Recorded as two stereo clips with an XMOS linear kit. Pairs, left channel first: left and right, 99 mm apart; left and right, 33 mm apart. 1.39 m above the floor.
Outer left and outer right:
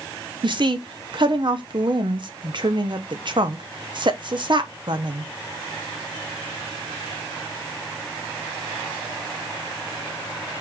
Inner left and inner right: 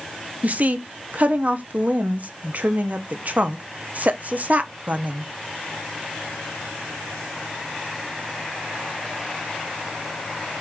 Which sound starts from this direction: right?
A woman speaking, at 0.4 s.